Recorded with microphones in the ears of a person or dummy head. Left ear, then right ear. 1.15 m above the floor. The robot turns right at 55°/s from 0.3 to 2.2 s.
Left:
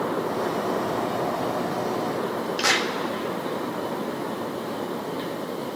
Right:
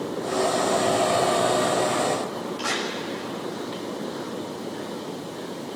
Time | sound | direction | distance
2.6 | a clap | 80° left | 1.8 m